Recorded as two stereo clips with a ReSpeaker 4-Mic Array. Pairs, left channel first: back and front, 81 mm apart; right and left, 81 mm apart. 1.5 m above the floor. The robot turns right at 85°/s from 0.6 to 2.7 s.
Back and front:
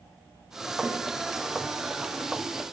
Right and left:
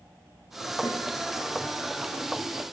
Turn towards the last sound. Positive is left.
turn(degrees=95)